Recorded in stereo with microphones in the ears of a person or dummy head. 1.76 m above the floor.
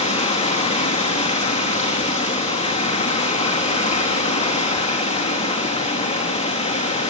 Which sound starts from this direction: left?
Running water, at 0.0 s.